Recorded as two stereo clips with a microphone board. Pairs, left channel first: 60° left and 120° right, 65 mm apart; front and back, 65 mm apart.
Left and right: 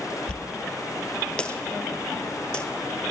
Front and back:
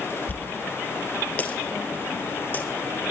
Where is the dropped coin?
5° left, 0.7 m.